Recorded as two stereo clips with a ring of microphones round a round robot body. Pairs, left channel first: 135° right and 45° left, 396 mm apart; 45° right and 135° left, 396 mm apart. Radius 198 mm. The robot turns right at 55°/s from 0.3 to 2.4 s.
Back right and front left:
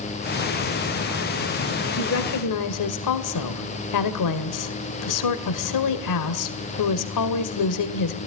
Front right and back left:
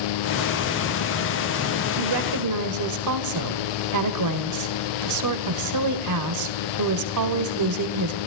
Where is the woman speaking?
155° left, 2 m; by 8.2 s straight behind, 2 m.